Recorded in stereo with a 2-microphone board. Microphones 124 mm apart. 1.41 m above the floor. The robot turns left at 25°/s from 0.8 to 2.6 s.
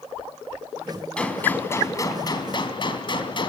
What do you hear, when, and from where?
1.2 s a gunshot: 170° left, 3 m; by 3.5 s 135° left, 3 m